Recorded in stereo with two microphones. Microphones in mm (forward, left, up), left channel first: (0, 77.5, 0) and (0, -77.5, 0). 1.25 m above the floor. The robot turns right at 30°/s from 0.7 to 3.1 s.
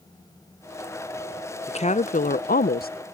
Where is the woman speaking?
40° left; by 2.9 s 80° left.